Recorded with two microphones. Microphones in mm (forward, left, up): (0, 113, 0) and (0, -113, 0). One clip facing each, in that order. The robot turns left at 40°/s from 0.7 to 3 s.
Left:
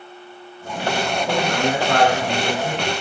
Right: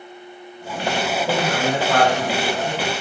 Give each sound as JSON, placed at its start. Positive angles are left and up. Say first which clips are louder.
{"t": 1.3, "sound": "a man speaking", "louder": "left 1 dB", "azimuth_deg": -130, "distance_m": 1.8}